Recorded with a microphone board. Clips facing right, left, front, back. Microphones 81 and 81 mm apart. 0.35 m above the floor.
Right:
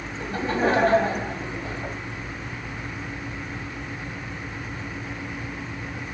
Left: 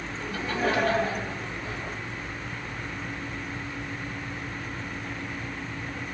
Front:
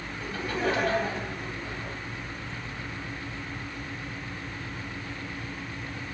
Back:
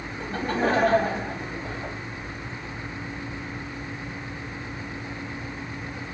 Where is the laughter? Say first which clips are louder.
Right 5 dB, back 4 dB; 140° right, 2.5 m.